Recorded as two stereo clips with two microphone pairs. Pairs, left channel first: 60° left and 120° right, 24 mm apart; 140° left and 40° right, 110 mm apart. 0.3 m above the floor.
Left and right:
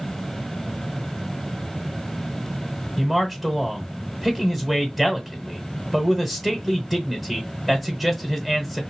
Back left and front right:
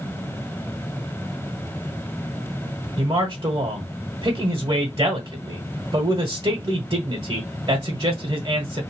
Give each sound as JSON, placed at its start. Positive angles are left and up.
{"t": 3.0, "sound": "a man speaking", "azimuth_deg": -35, "distance_m": 1.2}